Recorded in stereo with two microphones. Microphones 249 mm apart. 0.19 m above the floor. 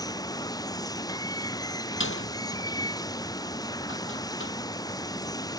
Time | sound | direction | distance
0.0 | running water | 15° left (ahead or behind) | ?
2.0 | a door slam | 55° left (ahead or behind) | ?